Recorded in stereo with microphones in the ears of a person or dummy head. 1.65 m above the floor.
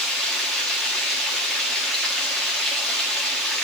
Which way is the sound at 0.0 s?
5° left (ahead or behind).